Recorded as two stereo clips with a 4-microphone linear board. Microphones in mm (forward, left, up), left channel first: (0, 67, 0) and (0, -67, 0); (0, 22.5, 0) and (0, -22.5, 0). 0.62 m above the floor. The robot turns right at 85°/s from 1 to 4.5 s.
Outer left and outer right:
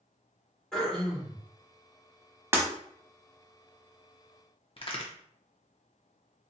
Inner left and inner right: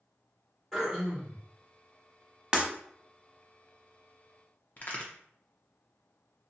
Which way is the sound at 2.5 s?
20° right (ahead or behind).